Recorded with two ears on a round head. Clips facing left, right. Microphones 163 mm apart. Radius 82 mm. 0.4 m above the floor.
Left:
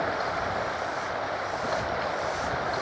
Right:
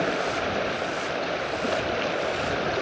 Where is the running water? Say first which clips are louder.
Right 3 dB; 35° right (ahead or behind).